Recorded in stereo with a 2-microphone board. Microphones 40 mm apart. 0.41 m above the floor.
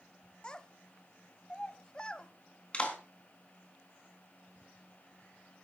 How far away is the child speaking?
About 1.1 m.